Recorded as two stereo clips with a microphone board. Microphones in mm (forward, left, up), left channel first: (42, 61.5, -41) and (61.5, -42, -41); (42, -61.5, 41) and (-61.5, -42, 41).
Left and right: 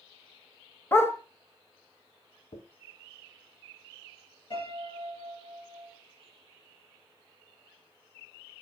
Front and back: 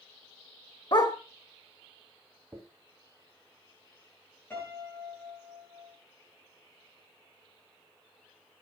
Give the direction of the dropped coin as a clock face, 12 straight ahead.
8 o'clock.